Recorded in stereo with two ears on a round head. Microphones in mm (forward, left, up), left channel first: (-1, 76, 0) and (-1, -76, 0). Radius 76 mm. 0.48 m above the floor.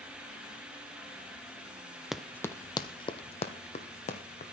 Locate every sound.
2.1 s running footsteps: centre (ahead or behind), 0.6 m; by 4.4 s 45° left (ahead or behind), 1.9 m